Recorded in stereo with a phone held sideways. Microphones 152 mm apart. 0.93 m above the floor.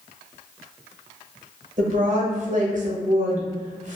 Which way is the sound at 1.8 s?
55° right (ahead or behind).